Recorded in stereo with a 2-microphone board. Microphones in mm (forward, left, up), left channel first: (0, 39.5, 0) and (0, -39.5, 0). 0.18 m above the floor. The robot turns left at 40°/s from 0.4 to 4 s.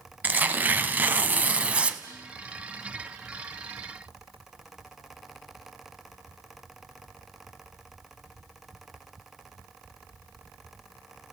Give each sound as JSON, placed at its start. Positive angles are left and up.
{"t": 0.2, "sound": "tearing paper", "side_deg": -20, "distance_m": 0.9}
{"t": 2.0, "sound": "dishes clattering", "side_deg": 60, "distance_m": 8.0}